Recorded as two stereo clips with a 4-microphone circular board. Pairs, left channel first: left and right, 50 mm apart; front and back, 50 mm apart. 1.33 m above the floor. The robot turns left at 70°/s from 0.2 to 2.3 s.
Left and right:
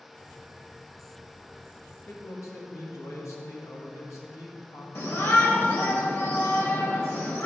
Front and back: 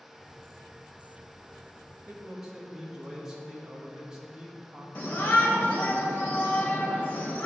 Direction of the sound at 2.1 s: 120° left.